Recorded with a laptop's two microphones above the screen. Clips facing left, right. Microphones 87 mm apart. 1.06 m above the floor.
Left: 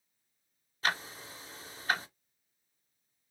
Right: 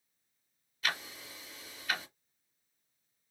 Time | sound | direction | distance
0.8 | ticking | 35° left (ahead or behind) | 1.4 m